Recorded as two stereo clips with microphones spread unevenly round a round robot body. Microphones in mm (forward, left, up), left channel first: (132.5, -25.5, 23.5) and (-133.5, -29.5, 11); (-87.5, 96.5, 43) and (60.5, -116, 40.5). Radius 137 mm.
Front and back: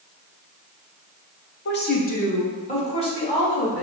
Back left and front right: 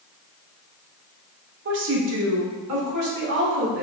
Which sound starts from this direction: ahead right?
A woman speaking, at 1.6 s.